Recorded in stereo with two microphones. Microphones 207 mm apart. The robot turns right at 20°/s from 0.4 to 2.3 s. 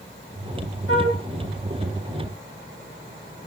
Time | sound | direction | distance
0.9 | a flute | 80° right | 1.3 m